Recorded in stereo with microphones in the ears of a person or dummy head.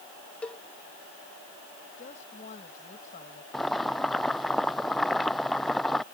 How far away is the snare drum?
I don't hear a snare drum.